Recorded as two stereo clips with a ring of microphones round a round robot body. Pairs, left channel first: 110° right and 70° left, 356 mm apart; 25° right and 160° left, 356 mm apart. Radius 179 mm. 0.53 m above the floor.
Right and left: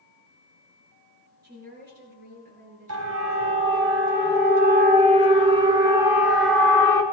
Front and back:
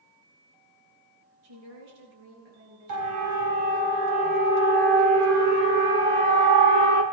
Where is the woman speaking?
130° left, 9.5 m; by 3.2 s 135° left, 10 m.